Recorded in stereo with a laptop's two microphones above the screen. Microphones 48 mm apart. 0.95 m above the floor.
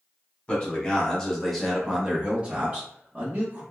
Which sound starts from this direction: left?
A man speaking, at 0.5 s.